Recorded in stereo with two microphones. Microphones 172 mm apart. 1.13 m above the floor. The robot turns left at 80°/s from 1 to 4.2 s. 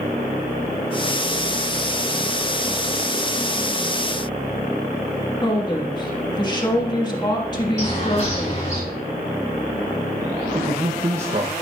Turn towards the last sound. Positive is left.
turn(degrees=-45)  # may be behind; listen again after turning